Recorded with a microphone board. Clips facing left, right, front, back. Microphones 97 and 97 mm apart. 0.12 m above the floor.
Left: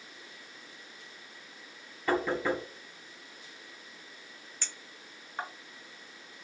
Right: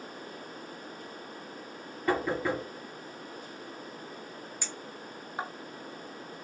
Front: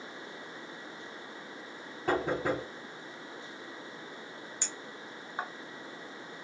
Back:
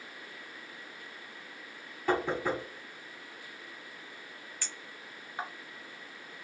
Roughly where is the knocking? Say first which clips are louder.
Even, even; ahead.